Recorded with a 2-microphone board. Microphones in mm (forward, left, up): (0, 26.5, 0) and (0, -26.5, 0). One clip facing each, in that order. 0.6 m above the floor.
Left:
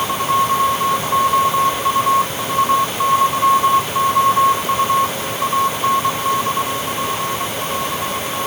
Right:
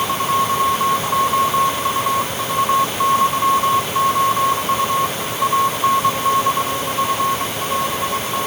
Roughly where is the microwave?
I don't hear a microwave.